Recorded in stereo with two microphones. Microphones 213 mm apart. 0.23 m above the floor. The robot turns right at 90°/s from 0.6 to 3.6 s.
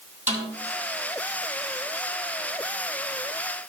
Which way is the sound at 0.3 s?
35° right (ahead or behind).